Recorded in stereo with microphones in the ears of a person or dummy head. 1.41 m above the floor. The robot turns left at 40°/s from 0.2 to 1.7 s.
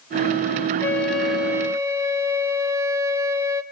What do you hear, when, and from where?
0.8 s a flute: 15° left, 1.4 m; by 3.6 s 20° right, 1.4 m